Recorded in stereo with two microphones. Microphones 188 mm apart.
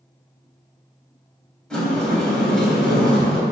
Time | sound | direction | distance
1.7 | a sliding door | 5° left (ahead or behind) | 3.5 m